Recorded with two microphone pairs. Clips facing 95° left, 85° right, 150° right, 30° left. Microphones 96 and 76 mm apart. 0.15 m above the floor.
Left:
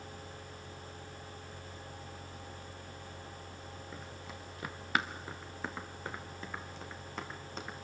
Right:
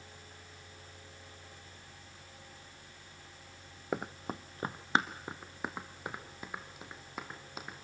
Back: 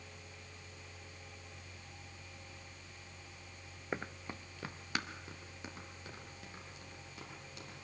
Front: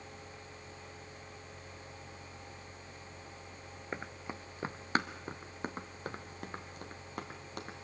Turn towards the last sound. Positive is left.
turn(degrees=-5)